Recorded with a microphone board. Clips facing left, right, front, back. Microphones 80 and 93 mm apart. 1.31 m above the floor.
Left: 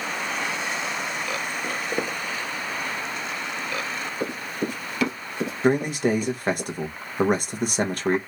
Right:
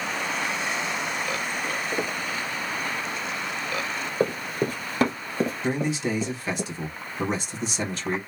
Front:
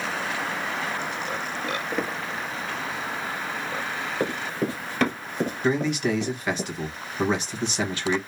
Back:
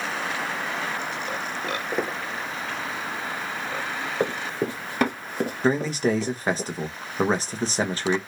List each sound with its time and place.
1.6 s footsteps: 110° left, 1.4 m
4.2 s running footsteps: 120° right, 1.9 m; by 6.6 s 65° right, 1.4 m
5.6 s a man speaking: 125° left, 1.1 m